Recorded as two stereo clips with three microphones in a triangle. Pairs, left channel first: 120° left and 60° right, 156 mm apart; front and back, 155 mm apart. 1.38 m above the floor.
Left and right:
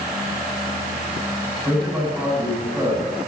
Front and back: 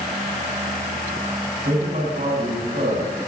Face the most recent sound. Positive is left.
turn(degrees=-150)